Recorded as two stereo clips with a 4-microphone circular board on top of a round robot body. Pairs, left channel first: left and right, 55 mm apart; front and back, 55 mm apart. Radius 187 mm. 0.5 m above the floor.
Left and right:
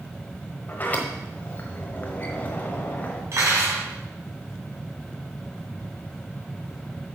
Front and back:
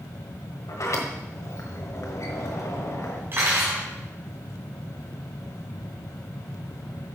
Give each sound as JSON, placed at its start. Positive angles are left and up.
{"t": 0.7, "sound": "a sliding door", "azimuth_deg": 30, "distance_m": 1.2}
{"t": 3.3, "sound": "cutlery clinking", "azimuth_deg": -130, "distance_m": 3.0}